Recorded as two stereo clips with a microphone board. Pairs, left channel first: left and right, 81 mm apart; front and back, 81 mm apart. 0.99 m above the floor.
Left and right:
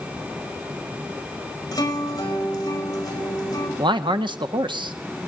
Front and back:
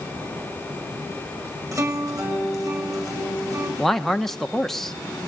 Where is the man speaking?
85° right, 1.4 m.